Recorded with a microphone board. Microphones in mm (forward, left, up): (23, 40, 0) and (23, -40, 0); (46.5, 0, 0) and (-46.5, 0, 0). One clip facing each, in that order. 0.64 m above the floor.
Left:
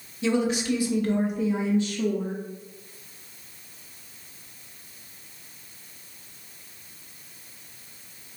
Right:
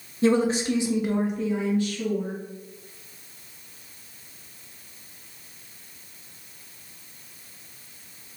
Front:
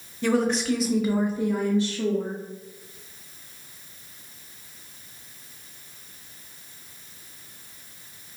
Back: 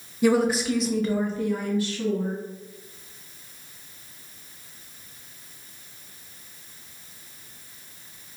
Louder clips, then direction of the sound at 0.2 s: Right 3 dB, back 2 dB; 105° right.